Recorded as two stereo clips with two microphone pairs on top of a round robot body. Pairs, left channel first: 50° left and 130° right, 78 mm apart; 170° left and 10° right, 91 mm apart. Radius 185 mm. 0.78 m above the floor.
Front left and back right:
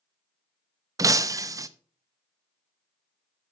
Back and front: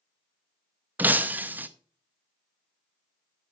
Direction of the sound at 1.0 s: 85° right.